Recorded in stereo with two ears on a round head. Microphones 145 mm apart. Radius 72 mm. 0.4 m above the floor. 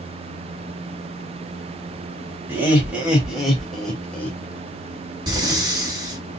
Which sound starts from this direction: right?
Breathing, at 5.3 s.